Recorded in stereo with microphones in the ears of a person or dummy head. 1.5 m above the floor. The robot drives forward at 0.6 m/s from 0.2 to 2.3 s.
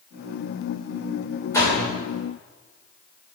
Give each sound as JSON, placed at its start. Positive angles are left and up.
{"t": 1.5, "sound": "a door slam", "side_deg": 15, "distance_m": 3.5}